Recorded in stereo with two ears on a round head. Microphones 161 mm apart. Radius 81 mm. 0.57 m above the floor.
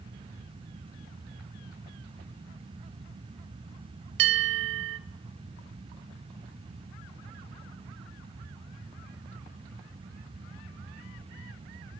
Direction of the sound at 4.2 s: 70° right (ahead or behind).